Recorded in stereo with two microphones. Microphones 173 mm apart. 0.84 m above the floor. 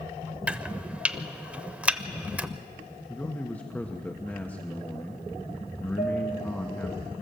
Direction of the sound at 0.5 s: 10° right (ahead or behind).